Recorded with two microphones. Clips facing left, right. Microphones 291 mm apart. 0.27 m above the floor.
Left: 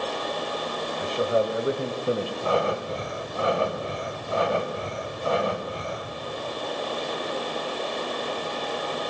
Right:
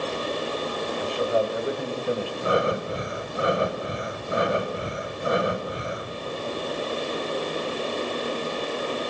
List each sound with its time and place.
1.0 s a man speaking: 20° left (ahead or behind), 1.0 m
2.4 s breathing: 20° right (ahead or behind), 1.3 m